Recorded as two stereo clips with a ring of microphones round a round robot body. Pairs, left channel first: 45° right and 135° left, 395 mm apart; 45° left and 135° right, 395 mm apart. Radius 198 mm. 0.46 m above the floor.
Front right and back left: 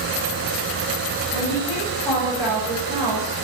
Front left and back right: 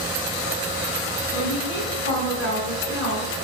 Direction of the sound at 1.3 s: 15° left.